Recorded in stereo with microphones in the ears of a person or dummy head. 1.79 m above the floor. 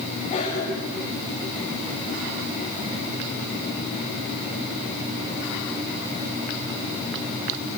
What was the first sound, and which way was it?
A cough, 45° left (ahead or behind).